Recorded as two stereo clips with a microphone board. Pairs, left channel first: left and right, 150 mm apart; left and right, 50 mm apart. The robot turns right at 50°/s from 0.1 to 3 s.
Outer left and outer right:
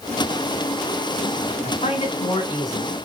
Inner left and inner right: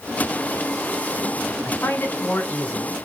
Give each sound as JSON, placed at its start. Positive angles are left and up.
{"t": 1.6, "sound": "a man speaking", "azimuth_deg": 100, "distance_m": 2.0}